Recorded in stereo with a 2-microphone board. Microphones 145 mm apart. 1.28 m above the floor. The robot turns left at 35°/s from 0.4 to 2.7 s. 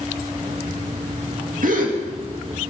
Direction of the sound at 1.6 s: 75° right (ahead or behind).